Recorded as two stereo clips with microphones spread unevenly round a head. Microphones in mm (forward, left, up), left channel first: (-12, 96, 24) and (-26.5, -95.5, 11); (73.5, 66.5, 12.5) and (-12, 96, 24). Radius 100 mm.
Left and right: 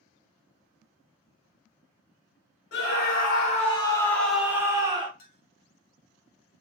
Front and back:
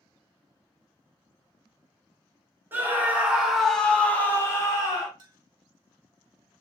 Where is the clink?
125° left, 0.9 m.